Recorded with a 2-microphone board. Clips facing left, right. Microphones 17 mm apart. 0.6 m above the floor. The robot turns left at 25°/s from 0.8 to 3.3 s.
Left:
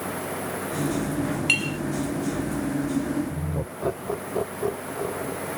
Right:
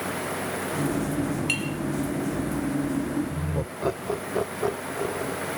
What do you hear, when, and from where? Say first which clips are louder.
1.5 s a clink: left 4 dB; 15° left (ahead or behind); by 1.8 s 25° left (ahead or behind)
3.3 s laughter: right 1 dB; 40° right (ahead or behind)